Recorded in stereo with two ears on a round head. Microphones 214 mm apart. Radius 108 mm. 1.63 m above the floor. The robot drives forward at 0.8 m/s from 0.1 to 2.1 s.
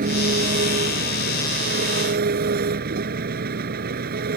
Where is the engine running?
35° right (ahead or behind); by 4.4 s 40° right (ahead or behind).